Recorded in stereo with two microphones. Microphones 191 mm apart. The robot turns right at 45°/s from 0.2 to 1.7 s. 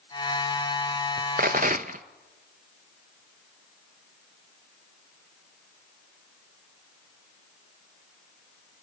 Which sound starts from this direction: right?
A rattle, at 1.4 s.